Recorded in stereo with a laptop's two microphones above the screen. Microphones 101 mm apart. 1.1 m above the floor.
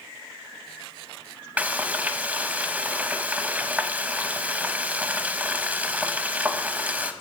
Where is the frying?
15° right (ahead or behind), 0.5 m.